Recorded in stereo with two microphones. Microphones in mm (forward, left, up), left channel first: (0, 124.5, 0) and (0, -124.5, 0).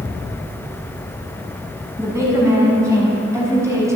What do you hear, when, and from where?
2.0 s a woman speaking: 10° right (ahead or behind), 6 m